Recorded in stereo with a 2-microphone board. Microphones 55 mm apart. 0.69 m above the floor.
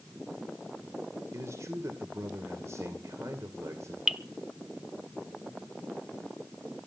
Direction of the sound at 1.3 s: 60° right (ahead or behind).